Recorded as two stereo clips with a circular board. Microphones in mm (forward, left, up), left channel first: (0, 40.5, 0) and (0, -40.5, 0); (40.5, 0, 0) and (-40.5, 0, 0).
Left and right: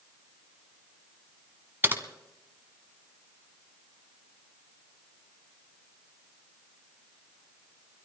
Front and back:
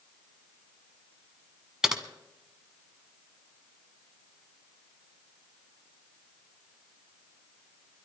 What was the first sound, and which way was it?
Typing on a keyboard, 105° right.